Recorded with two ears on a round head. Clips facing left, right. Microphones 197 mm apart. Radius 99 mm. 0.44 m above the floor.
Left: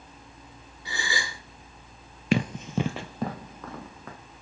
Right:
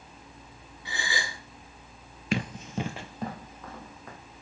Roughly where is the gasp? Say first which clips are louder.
Left 1 dB; left.